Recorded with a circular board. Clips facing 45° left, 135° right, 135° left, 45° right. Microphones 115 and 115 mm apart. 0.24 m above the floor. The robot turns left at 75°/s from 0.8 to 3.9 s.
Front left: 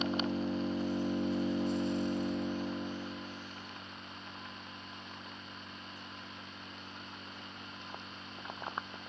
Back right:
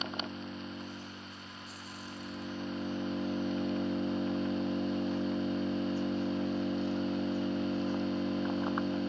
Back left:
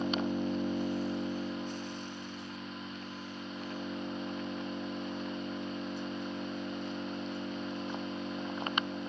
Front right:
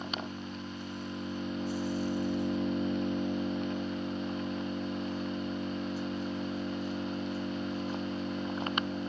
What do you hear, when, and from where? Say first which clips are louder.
0.0 s an engine running: front left 6 dB, back left 7 dB; 100° left; by 9.1 s 130° right